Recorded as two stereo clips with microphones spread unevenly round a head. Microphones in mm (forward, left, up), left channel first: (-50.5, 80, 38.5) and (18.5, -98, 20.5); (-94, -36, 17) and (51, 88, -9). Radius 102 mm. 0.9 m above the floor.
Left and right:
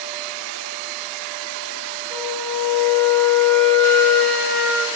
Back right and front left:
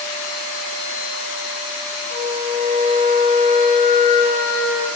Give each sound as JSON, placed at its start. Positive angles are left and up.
{"t": 2.1, "sound": "a flute", "azimuth_deg": -165, "distance_m": 2.0}